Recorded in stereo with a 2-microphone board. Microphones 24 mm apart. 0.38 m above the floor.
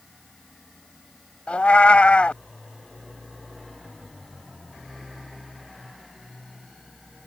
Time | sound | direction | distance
1.5 | a cat meowing | 65° left (ahead or behind) | ?